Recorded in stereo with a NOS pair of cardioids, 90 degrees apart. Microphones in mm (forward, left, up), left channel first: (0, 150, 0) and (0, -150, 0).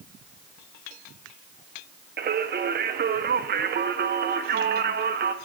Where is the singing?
35° right, 0.6 m.